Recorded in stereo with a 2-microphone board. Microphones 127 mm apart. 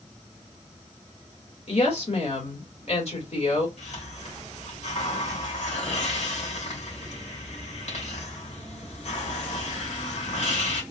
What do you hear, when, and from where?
1.7 s a woman speaking: 60° left (ahead or behind), 2 m
3.8 s a hiss: 65° left (ahead or behind), 2.5 m